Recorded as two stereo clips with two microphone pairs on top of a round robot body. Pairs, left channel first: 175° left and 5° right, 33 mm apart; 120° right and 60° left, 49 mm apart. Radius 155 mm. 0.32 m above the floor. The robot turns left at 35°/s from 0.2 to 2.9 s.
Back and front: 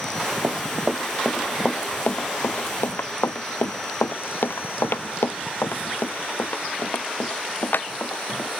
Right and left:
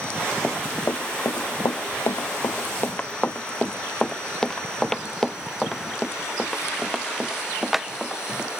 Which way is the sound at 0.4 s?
35° right.